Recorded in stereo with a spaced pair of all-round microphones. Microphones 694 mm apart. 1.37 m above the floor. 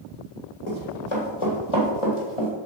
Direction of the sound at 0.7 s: 40° left (ahead or behind).